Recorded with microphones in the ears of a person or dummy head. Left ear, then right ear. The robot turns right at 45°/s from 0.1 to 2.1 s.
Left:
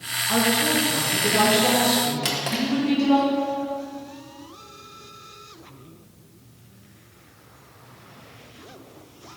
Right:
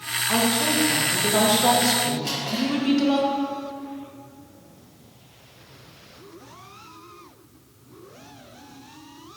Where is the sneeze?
I don't hear a sneeze.